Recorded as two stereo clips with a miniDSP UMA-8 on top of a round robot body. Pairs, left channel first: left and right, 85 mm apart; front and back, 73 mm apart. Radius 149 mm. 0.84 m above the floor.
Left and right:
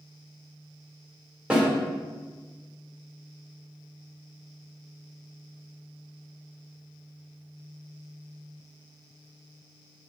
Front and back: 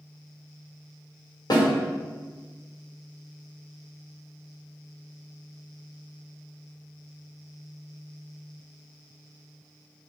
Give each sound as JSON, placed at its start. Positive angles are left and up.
{"t": 1.5, "sound": "a snare drum", "azimuth_deg": -10, "distance_m": 1.5}